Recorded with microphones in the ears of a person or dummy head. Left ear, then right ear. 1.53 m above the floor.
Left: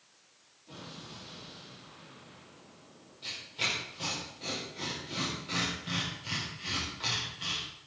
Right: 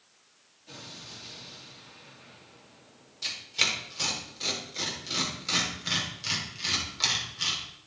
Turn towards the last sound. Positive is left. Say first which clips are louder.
# right 6 dB
turn(degrees=-60)  # may be behind; listen again after turning